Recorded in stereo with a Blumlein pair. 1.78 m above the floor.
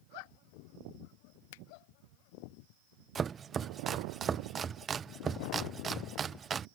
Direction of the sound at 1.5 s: 50° left.